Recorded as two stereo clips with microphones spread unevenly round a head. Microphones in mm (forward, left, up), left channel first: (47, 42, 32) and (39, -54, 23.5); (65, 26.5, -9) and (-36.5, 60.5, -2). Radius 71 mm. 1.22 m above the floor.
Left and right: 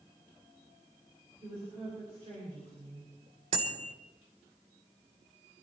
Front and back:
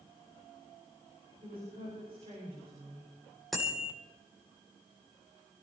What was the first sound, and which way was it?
A woman speaking, 150° right.